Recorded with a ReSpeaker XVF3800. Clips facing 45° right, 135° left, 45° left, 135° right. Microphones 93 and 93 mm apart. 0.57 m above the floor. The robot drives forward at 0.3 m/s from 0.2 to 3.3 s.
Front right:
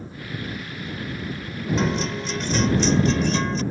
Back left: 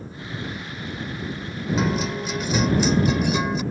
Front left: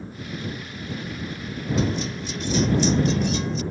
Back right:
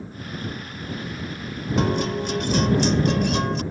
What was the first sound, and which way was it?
A guitar, 140° right.